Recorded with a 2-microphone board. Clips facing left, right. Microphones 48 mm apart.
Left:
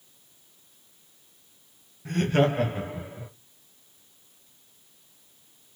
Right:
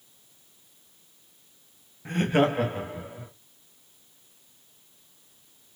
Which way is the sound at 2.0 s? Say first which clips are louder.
Even; 25° right (ahead or behind).